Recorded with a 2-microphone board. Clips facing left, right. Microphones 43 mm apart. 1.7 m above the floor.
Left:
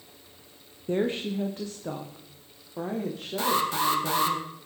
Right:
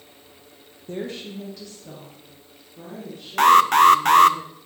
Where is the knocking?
No knocking in this recording.